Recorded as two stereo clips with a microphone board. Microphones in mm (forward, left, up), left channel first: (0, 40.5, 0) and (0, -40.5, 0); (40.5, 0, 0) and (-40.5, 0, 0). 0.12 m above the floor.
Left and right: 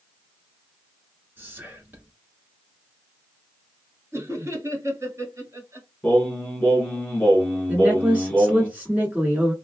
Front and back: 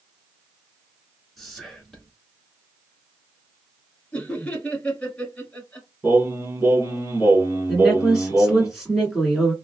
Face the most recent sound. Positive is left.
turn(degrees=-105)